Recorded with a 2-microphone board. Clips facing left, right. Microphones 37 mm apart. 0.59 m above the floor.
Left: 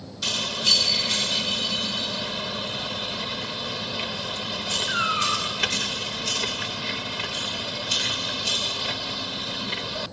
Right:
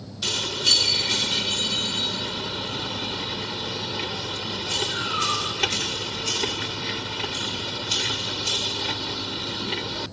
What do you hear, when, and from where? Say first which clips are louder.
4.9 s a cat meowing: left 4 dB; 75° left (ahead or behind), 2 m